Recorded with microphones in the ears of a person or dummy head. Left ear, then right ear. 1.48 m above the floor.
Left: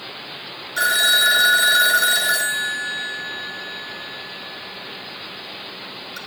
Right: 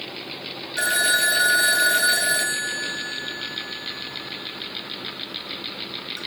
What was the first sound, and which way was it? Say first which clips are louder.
A phone ringing: left 4 dB; 65° left (ahead or behind).